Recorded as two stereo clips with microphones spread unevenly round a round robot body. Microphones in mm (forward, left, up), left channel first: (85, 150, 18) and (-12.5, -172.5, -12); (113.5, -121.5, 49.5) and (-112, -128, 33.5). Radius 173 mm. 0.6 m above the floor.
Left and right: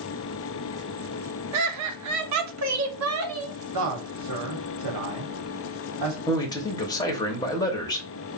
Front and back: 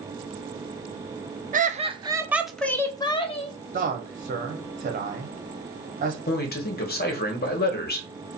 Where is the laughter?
135° right, 0.9 m; by 3.5 s 60° right, 1.1 m.